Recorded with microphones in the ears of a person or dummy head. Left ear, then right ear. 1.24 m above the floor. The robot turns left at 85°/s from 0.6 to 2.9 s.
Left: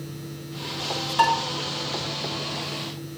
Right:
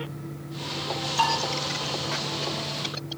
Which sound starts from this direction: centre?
Dishes clattering, at 1.2 s.